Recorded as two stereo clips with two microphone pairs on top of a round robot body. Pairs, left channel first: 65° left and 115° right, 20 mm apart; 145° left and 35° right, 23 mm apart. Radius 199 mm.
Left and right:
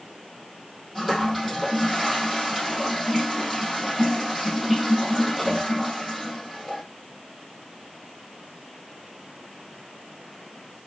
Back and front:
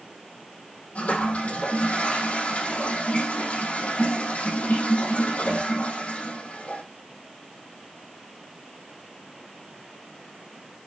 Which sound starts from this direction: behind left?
A toilet flushing, at 0.9 s.